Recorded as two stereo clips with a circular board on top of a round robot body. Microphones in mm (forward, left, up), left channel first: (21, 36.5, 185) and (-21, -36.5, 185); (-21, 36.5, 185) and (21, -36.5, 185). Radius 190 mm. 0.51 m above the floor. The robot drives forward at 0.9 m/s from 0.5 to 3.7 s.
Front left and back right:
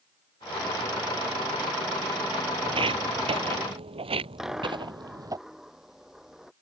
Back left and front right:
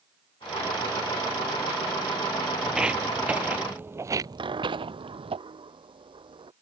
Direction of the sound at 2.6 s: 140° right.